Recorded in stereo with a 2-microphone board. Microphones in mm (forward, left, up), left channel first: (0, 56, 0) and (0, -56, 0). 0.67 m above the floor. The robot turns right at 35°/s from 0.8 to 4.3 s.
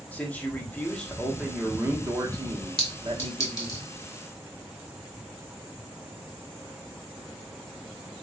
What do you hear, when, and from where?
0.1 s a man speaking: 160° left, 0.8 m; by 3.8 s 95° right, 0.8 m
2.8 s a clink: 5° left (ahead or behind), 1.7 m; by 3.8 s 40° left (ahead or behind), 1.7 m